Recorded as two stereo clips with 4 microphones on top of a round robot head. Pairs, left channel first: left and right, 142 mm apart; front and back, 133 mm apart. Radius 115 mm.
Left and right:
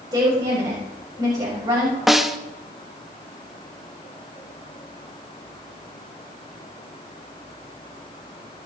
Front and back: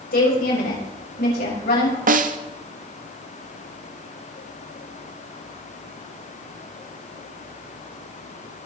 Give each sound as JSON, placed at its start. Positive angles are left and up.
{"t": 0.1, "sound": "a woman speaking", "azimuth_deg": -20, "distance_m": 7.0}
{"t": 2.1, "sound": "a snare drum", "azimuth_deg": 180, "distance_m": 1.3}